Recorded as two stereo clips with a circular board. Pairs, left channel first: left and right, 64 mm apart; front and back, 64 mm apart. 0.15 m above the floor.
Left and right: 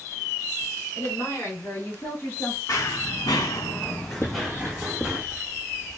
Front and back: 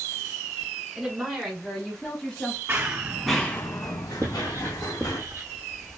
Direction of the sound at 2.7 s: 120° left.